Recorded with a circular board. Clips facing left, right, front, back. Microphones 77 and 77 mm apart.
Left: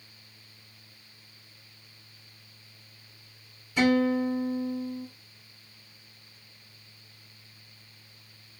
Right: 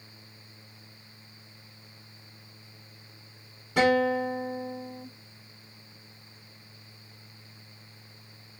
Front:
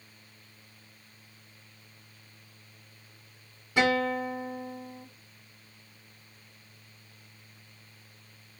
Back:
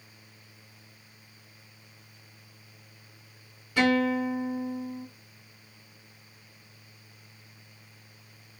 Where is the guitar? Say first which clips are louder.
Even, back 2 dB; 65° right, 2.5 m.